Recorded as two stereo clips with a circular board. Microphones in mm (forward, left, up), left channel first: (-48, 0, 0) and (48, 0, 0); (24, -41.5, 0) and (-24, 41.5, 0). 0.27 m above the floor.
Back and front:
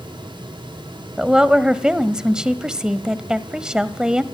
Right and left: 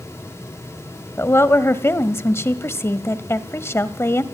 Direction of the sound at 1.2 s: 75° right.